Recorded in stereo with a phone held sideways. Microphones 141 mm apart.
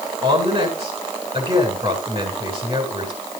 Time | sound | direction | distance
0.2 | a woman speaking | 45° right (ahead or behind) | 7.5 m